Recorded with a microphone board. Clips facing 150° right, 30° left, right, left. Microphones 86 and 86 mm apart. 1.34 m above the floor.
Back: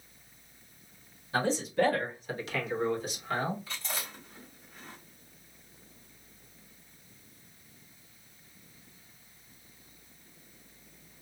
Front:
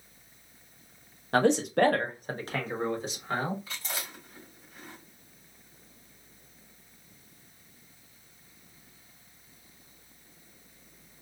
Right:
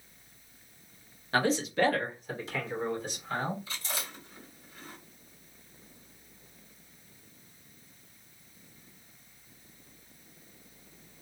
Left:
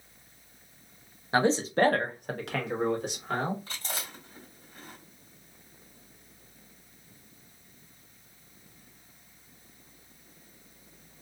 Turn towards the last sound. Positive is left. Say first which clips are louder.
# even, even
turn(degrees=115)